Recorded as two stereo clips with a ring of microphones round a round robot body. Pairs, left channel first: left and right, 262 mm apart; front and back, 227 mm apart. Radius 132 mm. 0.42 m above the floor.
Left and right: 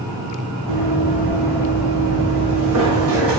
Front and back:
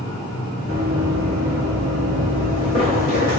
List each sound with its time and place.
0.7 s running footsteps: 110° right, 1.8 m; by 3.4 s 45° right, 1.5 m